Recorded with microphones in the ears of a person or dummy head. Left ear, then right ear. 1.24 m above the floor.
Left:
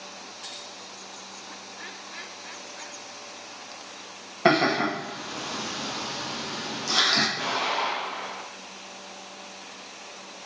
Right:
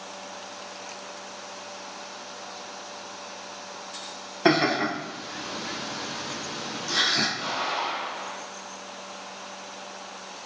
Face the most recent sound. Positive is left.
turn(degrees=70)  # may be behind; listen again after turning